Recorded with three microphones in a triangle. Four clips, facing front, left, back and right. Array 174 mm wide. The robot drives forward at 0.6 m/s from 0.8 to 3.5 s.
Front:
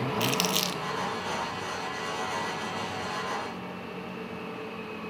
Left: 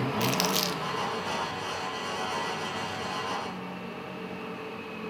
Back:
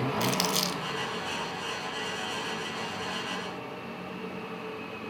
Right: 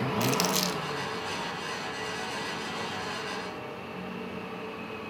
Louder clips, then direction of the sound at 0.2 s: Right 1 dB, even; 70° left.